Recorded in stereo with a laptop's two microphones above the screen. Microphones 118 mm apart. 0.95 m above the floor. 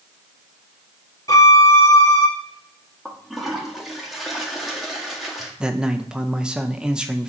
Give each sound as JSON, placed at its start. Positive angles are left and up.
{"t": 1.3, "sound": "a violin", "side_deg": 30, "distance_m": 1.5}
{"t": 3.0, "sound": "a toilet flushing", "side_deg": 0, "distance_m": 1.6}
{"t": 5.6, "sound": "a man speaking", "side_deg": -5, "distance_m": 0.6}